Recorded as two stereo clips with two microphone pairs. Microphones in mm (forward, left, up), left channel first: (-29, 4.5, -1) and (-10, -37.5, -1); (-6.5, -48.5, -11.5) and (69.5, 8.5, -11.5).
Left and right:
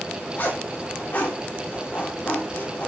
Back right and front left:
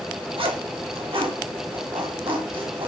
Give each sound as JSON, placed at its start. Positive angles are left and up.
{"t": 0.4, "sound": "a zipper", "azimuth_deg": 60, "distance_m": 3.0}